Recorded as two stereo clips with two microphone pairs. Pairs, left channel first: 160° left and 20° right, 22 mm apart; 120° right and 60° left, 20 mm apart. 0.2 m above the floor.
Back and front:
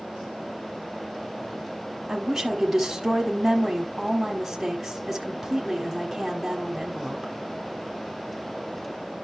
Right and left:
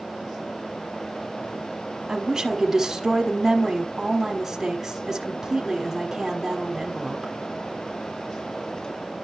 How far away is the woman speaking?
About 1.2 m.